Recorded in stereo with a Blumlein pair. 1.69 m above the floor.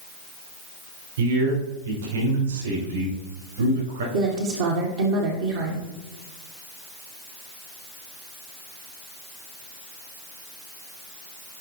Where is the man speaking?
65° right, 5.5 m.